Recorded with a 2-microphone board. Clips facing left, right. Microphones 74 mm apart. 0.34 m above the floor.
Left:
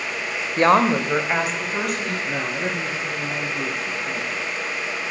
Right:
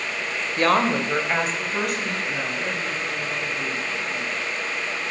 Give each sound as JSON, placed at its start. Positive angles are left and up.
{"t": 0.6, "sound": "a woman speaking", "side_deg": 25, "distance_m": 0.9}
{"t": 2.2, "sound": "a man speaking", "side_deg": 70, "distance_m": 3.5}